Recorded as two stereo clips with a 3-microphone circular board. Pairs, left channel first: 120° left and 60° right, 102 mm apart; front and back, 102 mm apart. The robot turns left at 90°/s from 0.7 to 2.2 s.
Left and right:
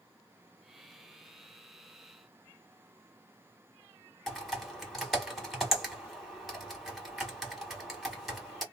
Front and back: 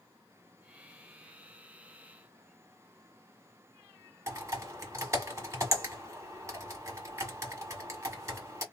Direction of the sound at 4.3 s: 150° right.